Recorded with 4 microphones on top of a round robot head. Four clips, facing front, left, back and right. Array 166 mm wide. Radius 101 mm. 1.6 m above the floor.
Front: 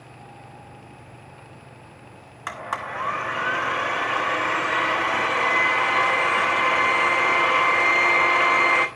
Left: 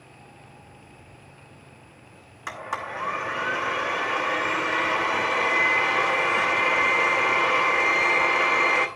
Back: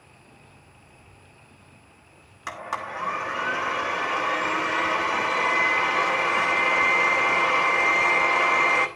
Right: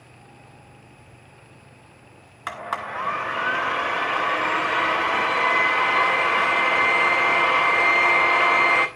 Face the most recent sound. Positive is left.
turn(degrees=-60)